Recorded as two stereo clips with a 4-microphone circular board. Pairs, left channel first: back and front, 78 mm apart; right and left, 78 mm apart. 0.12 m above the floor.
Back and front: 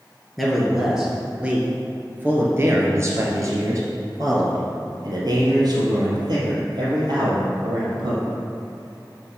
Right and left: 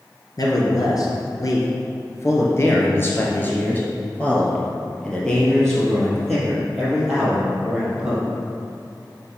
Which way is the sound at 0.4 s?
90° right.